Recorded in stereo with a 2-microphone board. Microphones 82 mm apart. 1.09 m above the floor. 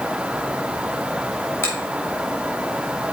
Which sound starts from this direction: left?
A finger snap, at 1.6 s.